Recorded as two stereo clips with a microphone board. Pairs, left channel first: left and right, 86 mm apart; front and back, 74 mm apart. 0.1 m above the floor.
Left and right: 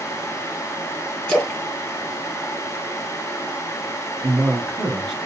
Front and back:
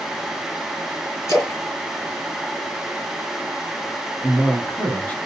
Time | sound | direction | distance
1.3 | a splash | 10° left | 2 m
4.2 | a man speaking | 5° left | 1.2 m